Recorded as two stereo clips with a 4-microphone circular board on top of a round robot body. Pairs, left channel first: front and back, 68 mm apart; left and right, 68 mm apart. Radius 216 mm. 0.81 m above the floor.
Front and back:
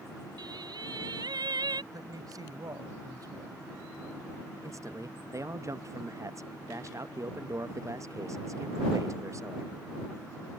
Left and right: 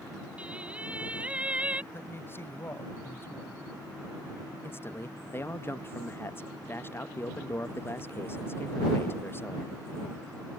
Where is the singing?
165° right.